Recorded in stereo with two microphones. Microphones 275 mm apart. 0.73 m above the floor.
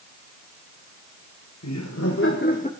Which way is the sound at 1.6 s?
70° left (ahead or behind).